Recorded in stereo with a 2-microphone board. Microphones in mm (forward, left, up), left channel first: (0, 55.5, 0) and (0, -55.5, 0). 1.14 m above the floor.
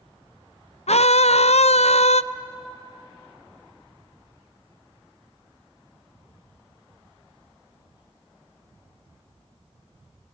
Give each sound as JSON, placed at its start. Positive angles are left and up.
{"t": 0.9, "sound": "a scream", "side_deg": 75, "distance_m": 0.5}